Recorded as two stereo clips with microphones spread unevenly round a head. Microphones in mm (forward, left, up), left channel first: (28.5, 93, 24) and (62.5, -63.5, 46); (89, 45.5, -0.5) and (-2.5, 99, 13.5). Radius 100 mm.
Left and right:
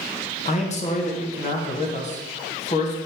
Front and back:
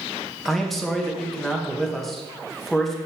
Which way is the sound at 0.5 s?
55° left.